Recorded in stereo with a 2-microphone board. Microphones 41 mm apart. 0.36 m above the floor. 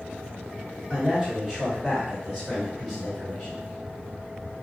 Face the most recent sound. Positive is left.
turn(degrees=5)  # may be behind; listen again after turning